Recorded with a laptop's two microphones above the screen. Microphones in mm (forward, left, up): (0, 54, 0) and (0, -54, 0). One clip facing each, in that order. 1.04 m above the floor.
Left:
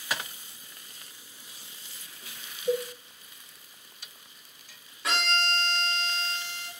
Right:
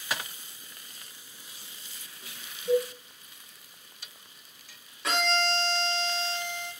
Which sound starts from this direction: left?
A cowbell, at 2.7 s.